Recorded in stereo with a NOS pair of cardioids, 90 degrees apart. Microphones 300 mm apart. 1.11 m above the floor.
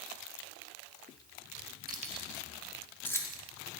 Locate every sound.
1.9 s keys jangling: 30° right, 1.2 m; by 3.4 s 10° left, 2 m